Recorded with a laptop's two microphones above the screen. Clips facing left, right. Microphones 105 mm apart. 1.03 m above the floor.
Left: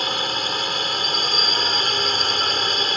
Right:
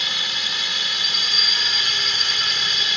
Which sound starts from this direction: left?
A drone, at 0.0 s.